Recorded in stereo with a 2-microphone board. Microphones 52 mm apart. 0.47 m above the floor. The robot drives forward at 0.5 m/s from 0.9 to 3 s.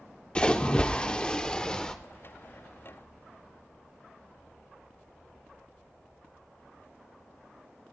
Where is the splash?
20° left (ahead or behind), 0.8 m; by 1.9 s 15° left (ahead or behind), 1.1 m.